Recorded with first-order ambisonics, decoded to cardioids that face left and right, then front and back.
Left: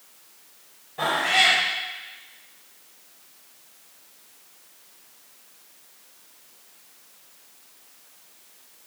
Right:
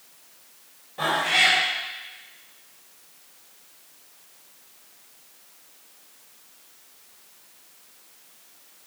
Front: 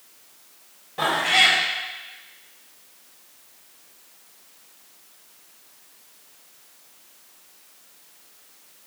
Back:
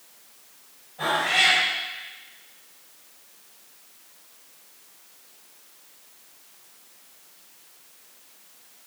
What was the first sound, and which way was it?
A cat meowing, straight ahead.